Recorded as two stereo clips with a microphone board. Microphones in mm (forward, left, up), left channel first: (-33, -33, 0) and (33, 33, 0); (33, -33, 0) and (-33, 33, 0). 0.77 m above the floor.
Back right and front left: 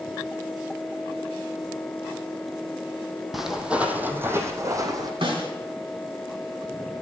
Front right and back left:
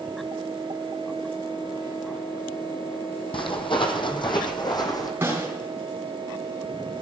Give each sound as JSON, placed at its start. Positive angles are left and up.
{"t": 3.3, "sound": "footsteps", "azimuth_deg": -45, "distance_m": 1.6}
{"t": 5.2, "sound": "a snare drum", "azimuth_deg": 70, "distance_m": 3.5}